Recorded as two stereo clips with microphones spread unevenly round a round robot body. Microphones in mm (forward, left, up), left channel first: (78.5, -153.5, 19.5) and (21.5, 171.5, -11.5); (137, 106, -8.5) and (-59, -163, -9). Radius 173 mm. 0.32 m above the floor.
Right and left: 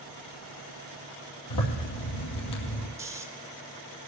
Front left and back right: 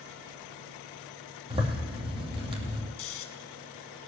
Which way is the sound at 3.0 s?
20° left.